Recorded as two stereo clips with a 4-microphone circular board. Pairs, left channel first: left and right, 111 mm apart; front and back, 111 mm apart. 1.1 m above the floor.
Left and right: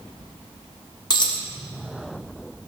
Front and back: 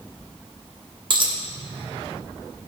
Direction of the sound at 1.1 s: 140° left.